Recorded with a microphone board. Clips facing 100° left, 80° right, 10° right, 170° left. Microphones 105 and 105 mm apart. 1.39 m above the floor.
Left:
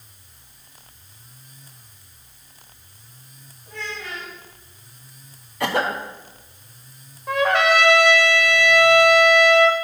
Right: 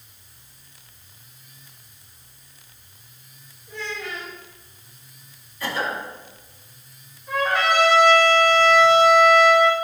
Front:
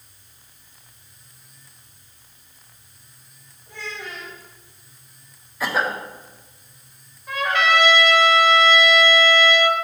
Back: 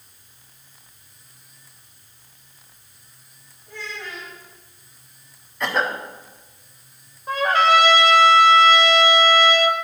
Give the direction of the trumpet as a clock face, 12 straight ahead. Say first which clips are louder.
Left 3 dB, back 3 dB; 8 o'clock.